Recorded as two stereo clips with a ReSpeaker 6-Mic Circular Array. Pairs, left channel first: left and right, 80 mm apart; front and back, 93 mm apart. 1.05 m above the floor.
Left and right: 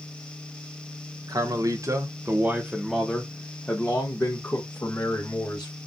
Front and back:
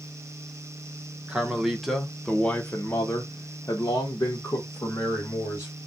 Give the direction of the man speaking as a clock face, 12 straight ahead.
3 o'clock.